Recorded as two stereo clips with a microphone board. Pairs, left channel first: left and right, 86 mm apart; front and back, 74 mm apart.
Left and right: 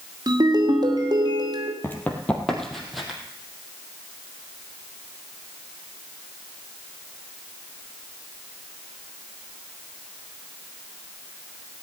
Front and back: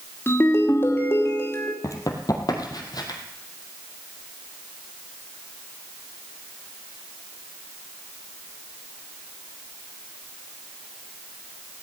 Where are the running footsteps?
30° left, 2 m; by 3.2 s 5° right, 3 m.